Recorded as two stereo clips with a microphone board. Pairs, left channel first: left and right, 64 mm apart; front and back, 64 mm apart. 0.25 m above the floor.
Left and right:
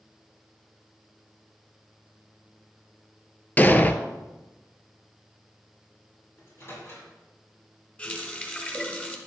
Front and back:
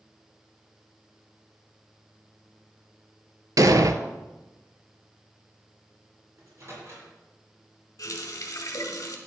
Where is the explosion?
150° left, 0.7 m.